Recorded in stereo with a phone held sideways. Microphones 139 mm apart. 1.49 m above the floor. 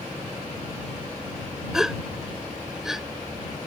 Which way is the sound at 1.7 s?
5° right (ahead or behind).